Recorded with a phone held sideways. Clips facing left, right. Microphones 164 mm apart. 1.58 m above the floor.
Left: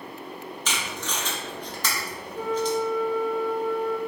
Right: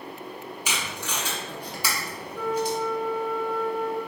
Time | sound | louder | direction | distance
0.7 | tape being pulled | left 1 dB | 10° right (ahead or behind) | 0.9 m
2.3 | a flute | left 1 dB | 30° left (ahead or behind) | 1.3 m